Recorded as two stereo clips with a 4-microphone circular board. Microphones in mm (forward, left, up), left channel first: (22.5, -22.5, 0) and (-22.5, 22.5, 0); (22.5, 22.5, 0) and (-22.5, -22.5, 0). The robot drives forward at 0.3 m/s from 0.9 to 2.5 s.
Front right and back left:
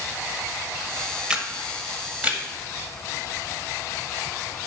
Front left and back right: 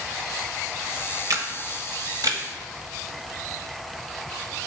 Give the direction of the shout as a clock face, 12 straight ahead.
No shout in this recording.